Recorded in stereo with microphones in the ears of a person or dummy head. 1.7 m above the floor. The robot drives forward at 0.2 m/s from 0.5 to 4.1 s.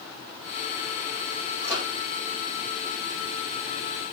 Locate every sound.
1.6 s a microwave: 25° right (ahead or behind), 7 m